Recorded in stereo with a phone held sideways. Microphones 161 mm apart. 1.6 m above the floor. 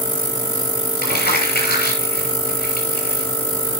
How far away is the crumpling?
About 7 m.